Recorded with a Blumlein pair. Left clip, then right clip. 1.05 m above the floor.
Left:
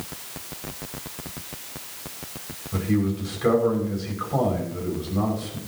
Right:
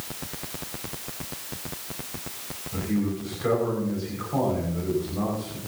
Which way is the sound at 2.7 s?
15° left.